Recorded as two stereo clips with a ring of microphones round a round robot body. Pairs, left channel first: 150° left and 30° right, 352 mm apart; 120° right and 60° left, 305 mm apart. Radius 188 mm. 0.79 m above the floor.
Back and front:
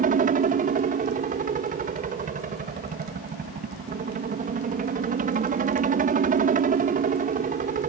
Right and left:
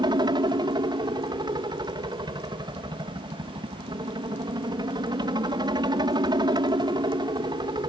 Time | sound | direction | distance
0.0 | a helicopter | straight ahead | ?